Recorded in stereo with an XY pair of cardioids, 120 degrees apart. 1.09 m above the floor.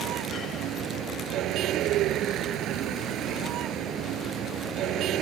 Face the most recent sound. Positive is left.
turn(degrees=-70)